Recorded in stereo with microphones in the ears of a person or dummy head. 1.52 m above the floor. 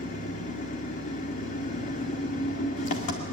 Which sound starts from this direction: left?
An engine running, at 0.0 s.